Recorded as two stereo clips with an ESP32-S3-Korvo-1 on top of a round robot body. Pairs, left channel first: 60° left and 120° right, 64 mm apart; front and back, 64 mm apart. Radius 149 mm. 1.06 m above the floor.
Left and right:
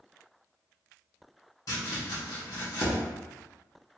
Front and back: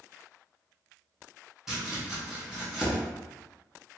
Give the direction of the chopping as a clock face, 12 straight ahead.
9 o'clock.